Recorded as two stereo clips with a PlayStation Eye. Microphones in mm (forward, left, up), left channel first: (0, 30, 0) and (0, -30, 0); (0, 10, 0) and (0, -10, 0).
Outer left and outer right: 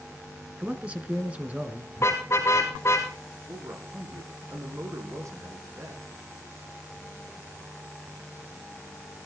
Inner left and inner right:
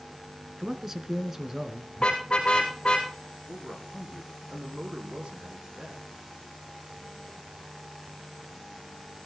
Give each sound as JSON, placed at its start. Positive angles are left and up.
{"t": 0.6, "sound": "a man speaking", "side_deg": -25, "distance_m": 1.7}
{"t": 2.0, "sound": "a car horn", "side_deg": 50, "distance_m": 4.0}
{"t": 3.5, "sound": "a man speaking", "side_deg": -60, "distance_m": 6.5}